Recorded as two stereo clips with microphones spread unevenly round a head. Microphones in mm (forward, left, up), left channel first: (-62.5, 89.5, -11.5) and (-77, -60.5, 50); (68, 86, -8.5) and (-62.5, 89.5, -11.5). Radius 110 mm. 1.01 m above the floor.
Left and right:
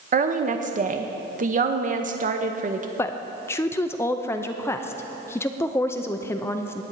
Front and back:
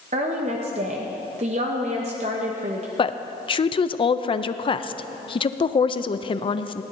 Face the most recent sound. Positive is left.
turn(degrees=40)